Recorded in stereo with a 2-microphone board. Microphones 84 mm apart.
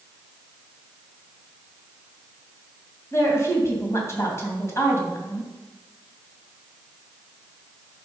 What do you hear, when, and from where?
3.1 s a woman speaking: 35° left (ahead or behind), 3 m